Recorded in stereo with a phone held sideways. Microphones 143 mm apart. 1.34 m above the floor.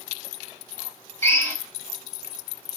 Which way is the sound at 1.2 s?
20° left (ahead or behind).